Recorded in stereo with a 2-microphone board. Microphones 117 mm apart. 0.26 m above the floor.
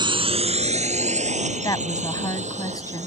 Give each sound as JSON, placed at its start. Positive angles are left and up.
{"t": 0.0, "sound": "a drone", "side_deg": -40}
{"t": 1.6, "sound": "a woman speaking", "side_deg": 30}